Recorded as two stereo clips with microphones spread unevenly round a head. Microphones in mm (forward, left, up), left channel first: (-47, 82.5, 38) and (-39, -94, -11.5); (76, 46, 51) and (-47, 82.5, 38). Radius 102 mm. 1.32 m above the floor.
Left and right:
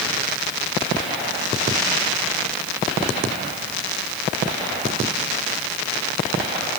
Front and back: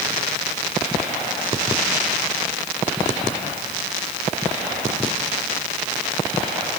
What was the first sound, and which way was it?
Only background noise.